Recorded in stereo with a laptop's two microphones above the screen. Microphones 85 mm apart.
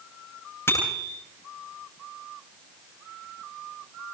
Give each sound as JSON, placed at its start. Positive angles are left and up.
{"t": 0.7, "sound": "a bicycle bell", "side_deg": 30, "distance_m": 10.0}